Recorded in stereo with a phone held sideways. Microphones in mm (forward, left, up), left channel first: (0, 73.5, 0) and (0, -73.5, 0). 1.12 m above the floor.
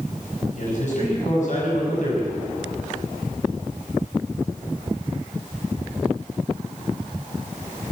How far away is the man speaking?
About 7 m.